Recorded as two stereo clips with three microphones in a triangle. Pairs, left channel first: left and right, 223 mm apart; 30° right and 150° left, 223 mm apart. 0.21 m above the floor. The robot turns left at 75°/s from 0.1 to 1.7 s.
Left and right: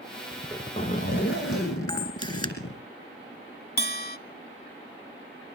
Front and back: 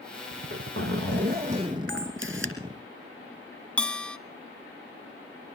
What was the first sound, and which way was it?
A zipper, 175° right.